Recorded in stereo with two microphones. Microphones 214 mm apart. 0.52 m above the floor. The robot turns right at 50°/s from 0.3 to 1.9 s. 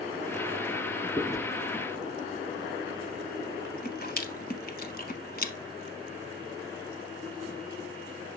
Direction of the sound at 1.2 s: 10° left (ahead or behind).